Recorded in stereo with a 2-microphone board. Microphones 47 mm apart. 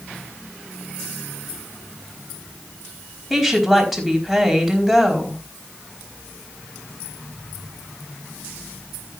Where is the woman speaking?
Centre (ahead or behind), 4.5 m.